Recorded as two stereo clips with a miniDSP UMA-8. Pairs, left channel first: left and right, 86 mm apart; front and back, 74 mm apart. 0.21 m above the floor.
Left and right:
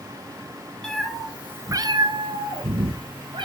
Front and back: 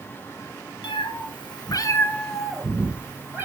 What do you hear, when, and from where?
0.8 s a cat meowing: 5° left, 1.0 m; by 3.4 s 115° right, 1.5 m